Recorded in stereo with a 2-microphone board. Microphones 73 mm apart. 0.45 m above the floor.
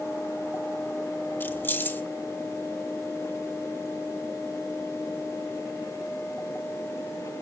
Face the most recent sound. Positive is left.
turn(degrees=30)  # may be behind; listen again after turning